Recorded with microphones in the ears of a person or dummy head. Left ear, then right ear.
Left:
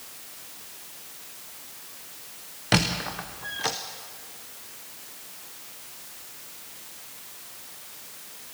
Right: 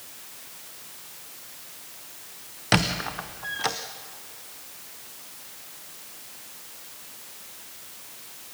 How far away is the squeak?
About 0.6 m.